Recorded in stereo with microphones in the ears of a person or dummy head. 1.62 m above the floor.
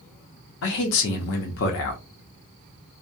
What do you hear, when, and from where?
0.6 s a man speaking: 60° left (ahead or behind), 0.7 m